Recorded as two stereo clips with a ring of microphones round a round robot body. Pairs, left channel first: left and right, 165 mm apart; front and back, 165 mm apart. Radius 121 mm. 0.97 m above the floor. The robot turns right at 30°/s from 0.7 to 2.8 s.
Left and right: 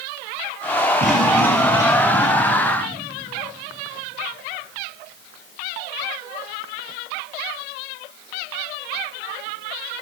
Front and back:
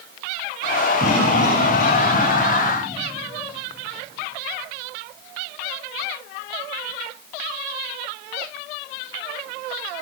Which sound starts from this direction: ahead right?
A cough, at 1.0 s.